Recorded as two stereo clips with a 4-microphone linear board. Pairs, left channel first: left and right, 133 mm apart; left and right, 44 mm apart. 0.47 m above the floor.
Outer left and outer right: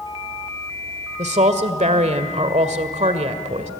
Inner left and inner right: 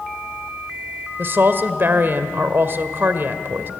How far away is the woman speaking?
About 1.8 m.